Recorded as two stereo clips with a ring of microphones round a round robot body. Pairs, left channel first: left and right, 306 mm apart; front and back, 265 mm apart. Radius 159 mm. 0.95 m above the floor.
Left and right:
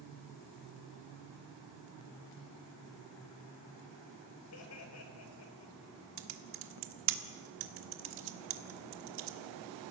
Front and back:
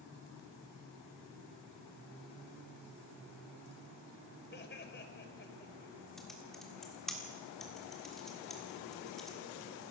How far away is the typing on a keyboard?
About 1.4 m.